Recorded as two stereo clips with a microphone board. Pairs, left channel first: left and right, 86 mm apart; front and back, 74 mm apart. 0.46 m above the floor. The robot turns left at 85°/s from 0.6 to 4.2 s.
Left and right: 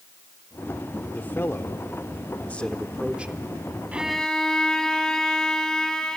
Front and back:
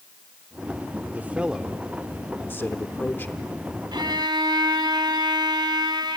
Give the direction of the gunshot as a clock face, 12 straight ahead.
I don't hear a gunshot.